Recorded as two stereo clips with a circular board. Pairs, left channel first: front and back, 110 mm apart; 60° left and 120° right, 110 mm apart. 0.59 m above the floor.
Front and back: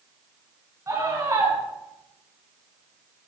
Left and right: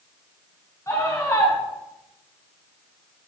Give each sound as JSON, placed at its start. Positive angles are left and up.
{"t": 0.9, "sound": "a scream", "azimuth_deg": 120, "distance_m": 5.5}